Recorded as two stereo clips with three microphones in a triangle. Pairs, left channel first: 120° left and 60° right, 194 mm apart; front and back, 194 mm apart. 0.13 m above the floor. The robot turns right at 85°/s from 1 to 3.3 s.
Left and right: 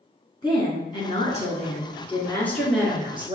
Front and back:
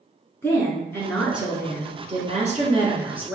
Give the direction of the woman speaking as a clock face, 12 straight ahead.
10 o'clock.